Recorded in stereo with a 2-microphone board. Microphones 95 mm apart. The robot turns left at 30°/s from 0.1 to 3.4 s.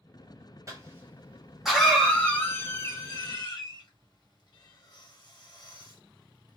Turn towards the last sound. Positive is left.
turn(degrees=50)  # may be behind; listen again after turning